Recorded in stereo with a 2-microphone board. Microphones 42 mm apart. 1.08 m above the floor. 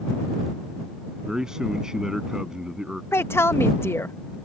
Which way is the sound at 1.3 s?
10° right (ahead or behind).